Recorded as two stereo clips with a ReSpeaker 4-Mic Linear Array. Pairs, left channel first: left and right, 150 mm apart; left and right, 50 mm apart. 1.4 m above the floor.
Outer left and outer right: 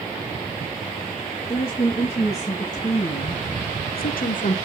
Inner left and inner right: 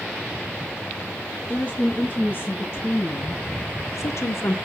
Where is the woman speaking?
35° left (ahead or behind), 3 m; by 4.5 s 55° left (ahead or behind), 1.3 m.